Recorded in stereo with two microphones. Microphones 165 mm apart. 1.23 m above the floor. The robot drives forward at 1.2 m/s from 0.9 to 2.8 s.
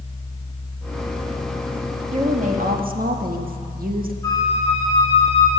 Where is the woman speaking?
40° right (ahead or behind), 2 m; by 4.1 s 60° right (ahead or behind), 1.6 m.